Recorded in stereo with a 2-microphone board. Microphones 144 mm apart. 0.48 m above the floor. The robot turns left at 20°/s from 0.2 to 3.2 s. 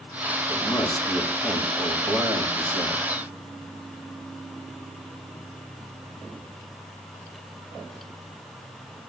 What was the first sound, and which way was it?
A man speaking, 10° left.